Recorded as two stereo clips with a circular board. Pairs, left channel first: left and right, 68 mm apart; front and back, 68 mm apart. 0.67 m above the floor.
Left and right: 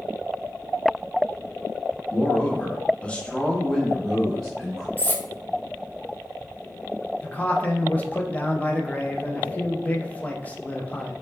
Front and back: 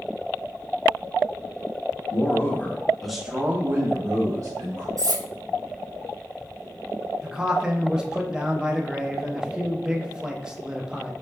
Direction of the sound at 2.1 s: 20° left.